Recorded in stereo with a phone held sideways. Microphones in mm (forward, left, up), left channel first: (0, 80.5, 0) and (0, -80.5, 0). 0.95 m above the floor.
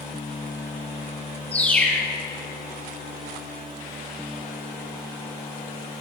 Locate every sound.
1.5 s a bird: 10° left (ahead or behind), 0.8 m